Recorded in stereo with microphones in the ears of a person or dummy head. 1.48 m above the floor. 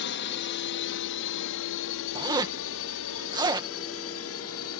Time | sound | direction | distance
0.0 | a drone | 60° left (ahead or behind) | ?
2.1 | a zipper | 25° right (ahead or behind) | ?